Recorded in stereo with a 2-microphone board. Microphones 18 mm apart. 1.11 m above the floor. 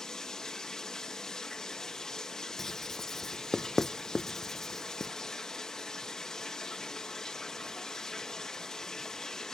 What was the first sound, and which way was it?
Running water, 35° left (ahead or behind).